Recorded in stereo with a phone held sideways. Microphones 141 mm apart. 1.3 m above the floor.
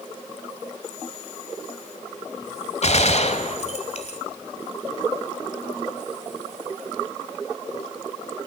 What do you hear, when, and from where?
2.8 s a gunshot: 50° left (ahead or behind), 1.6 m